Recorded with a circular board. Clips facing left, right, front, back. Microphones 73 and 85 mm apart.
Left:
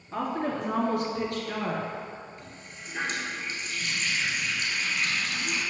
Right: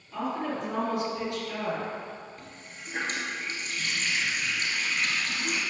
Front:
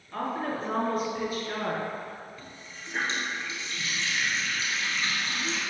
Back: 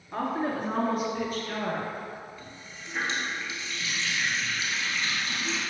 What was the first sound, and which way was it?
A woman speaking, 120° left.